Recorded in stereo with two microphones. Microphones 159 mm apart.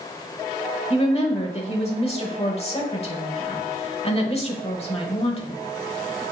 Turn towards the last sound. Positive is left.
turn(degrees=40)  # may be behind; listen again after turning